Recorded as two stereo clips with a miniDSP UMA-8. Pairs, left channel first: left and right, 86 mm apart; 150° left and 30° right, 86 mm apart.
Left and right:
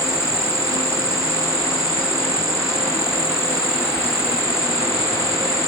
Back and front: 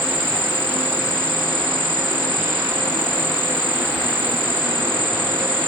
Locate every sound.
0.0 s an insect: 45° right, 2.0 m